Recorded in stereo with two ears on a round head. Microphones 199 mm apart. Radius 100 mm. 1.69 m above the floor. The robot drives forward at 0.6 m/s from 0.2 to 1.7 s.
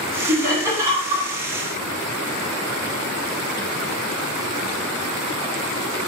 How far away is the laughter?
About 1.4 m.